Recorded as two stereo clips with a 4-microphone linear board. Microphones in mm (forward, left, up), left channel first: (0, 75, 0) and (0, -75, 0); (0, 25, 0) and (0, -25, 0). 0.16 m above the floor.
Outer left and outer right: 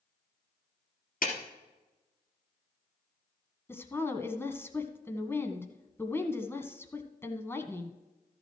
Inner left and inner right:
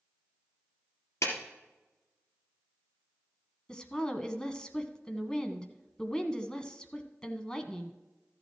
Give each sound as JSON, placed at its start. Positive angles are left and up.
{"t": 1.2, "sound": "a clap", "side_deg": 70, "distance_m": 3.0}
{"t": 3.7, "sound": "a woman speaking", "side_deg": 15, "distance_m": 1.0}